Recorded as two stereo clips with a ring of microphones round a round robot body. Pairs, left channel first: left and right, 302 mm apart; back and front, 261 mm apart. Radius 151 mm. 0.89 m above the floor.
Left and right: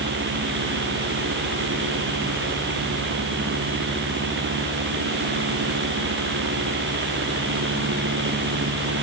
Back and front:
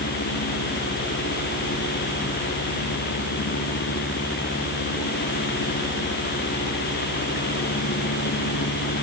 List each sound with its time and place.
Only background noise.